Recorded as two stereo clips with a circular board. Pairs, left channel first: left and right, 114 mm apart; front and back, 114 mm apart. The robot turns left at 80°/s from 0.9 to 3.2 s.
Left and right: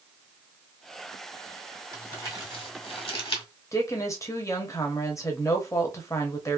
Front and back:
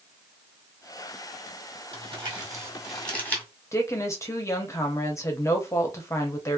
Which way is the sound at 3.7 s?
45° left.